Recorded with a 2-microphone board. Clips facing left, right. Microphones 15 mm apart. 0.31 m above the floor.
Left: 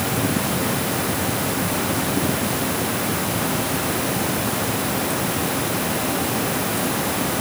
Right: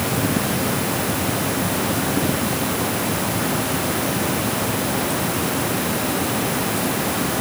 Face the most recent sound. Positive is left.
No sound to turn to.